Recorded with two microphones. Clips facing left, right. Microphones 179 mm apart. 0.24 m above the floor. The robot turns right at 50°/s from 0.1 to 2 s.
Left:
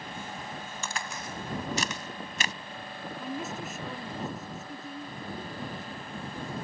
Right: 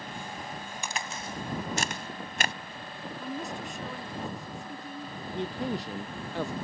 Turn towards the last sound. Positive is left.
turn(degrees=-80)